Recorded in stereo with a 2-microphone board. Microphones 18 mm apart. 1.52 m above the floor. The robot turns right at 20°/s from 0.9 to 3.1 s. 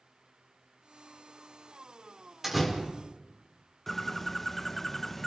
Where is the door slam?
20° right (ahead or behind), 4 m; by 2.7 s 15° right (ahead or behind), 4 m.